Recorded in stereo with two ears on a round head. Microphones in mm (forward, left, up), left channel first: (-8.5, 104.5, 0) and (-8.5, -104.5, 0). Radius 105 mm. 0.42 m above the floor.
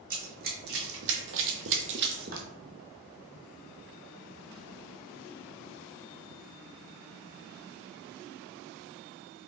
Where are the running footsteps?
35° right (ahead or behind), 1.2 m.